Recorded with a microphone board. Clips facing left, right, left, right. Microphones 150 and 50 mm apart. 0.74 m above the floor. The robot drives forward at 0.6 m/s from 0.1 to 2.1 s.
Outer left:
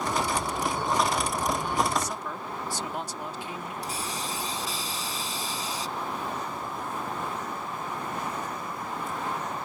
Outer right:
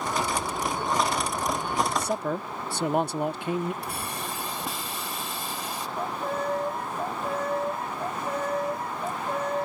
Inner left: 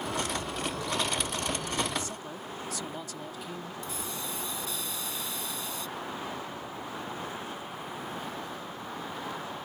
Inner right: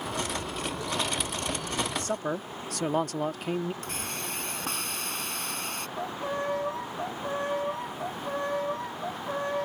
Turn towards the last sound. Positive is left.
turn(degrees=-60)  # may be behind; listen again after turning